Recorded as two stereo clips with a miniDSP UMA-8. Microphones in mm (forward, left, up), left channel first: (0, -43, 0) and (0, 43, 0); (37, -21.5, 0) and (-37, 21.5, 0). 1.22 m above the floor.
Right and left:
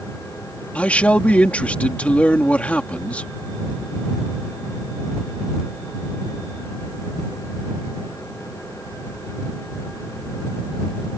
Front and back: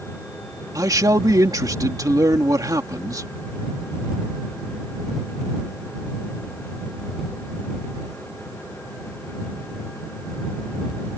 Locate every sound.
0.8 s a man speaking: 165° right